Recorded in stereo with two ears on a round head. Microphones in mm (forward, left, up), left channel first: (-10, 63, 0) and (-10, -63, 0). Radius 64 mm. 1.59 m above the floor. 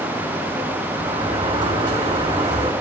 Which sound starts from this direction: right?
A sliding door, at 1.0 s.